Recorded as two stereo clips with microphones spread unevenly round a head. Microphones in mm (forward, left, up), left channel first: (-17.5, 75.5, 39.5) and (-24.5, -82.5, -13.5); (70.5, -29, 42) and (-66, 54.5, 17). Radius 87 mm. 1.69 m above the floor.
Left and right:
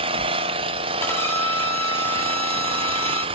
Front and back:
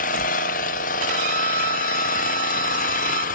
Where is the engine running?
25° right, 0.8 m.